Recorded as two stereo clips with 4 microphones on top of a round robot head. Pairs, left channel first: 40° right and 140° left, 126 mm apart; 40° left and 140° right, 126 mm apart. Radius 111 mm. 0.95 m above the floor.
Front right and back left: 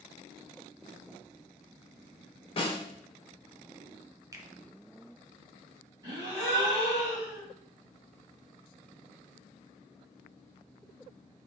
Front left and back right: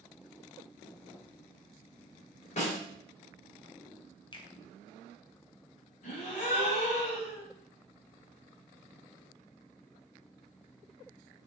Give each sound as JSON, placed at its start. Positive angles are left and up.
{"t": 2.6, "sound": "a snare drum", "azimuth_deg": 10, "distance_m": 1.1}
{"t": 4.3, "sound": "a finger snap", "azimuth_deg": 80, "distance_m": 0.7}
{"t": 6.0, "sound": "a gasp", "azimuth_deg": 75, "distance_m": 1.2}